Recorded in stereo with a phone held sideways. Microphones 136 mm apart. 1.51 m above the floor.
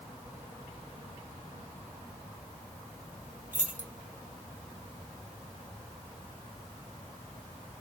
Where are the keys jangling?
65° right (ahead or behind), 1.6 m.